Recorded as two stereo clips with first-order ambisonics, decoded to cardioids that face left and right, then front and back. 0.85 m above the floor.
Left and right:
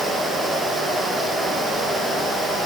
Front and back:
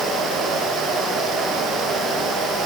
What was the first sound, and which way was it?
Only background noise.